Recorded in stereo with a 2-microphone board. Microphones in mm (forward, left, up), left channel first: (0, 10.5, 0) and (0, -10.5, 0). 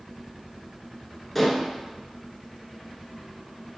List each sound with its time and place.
1.4 s dishes clattering: 10° left (ahead or behind), 1.0 m